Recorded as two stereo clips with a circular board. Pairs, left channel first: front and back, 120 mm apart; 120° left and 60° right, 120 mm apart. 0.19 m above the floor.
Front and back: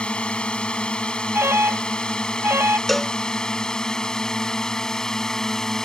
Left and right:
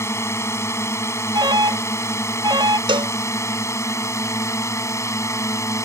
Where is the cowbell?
90° right.